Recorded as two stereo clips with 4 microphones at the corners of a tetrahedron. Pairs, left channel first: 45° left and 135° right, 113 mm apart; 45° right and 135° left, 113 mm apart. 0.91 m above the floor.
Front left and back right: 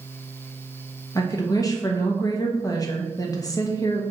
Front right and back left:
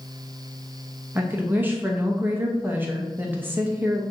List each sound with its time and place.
1.1 s a woman speaking: 75° left, 0.8 m